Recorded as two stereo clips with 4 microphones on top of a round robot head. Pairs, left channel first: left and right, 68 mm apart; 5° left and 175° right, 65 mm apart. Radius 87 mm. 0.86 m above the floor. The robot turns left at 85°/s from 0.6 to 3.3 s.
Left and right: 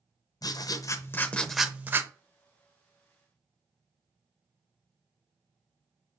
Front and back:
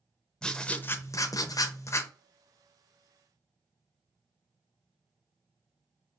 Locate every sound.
0.4 s writing: 85° left, 0.6 m; by 2.1 s 45° right, 0.6 m